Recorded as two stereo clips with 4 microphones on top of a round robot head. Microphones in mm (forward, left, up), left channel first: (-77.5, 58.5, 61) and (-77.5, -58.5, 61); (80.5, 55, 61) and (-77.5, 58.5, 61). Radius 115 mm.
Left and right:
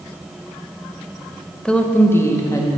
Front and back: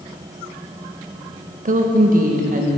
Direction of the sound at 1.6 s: 170° left.